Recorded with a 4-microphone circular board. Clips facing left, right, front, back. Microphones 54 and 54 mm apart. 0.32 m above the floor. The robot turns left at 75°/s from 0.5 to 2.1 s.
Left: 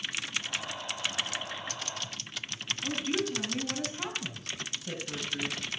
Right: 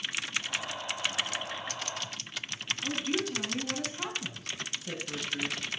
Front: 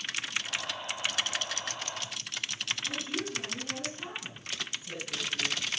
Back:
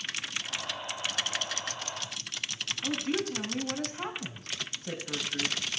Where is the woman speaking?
175° right, 3 m.